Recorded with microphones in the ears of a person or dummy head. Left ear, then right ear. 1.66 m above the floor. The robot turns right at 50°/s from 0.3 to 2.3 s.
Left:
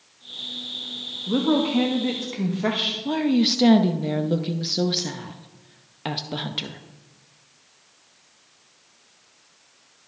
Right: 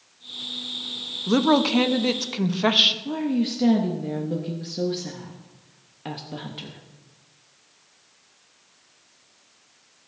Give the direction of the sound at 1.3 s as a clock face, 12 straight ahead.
3 o'clock.